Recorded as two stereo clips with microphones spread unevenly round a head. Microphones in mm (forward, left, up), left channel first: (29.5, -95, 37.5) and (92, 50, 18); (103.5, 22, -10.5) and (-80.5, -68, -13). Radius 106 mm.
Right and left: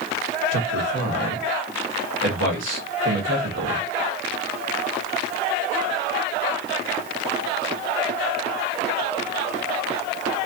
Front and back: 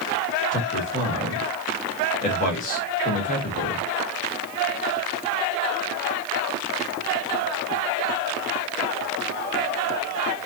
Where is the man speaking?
85° left, 1.3 m.